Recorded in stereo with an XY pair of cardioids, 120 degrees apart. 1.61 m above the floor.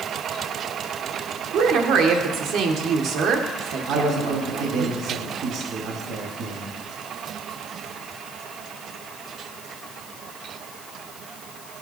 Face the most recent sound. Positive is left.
turn(degrees=-65)